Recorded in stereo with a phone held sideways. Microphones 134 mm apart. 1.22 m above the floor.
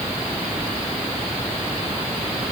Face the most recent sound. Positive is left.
No sound to turn to.